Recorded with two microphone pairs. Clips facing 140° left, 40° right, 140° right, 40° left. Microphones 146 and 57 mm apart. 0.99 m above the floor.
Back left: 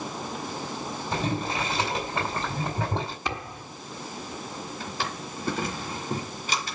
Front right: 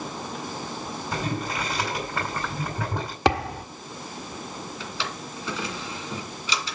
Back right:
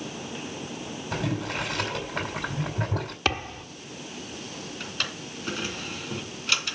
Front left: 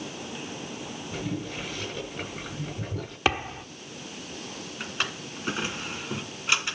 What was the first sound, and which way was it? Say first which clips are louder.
Boiling: back left 1 dB, back right 4 dB; 155° right.